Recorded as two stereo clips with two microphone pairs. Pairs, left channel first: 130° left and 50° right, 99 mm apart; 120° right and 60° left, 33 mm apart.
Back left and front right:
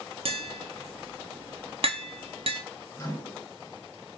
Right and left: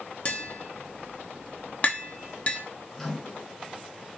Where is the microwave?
175° left, 1.7 m.